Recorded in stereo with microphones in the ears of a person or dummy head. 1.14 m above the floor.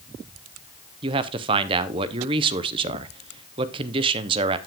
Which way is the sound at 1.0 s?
25° right (ahead or behind).